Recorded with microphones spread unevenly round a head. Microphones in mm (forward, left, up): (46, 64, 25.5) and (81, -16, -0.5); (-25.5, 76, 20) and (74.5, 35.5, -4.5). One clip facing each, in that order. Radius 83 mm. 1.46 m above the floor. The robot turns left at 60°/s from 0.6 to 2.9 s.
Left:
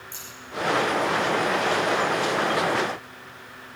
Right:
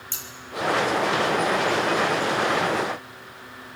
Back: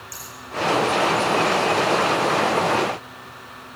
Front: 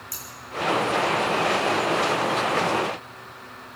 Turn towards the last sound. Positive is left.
turn(degrees=145)